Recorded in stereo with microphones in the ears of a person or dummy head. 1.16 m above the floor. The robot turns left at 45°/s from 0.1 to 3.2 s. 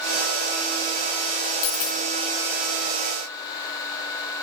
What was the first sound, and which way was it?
A dropped coin, 55° left (ahead or behind).